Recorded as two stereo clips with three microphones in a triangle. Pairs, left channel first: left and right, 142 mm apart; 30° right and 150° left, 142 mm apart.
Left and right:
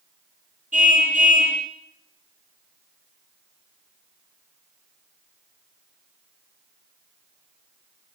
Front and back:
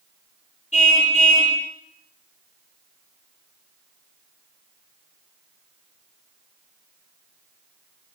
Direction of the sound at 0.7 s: 65° right.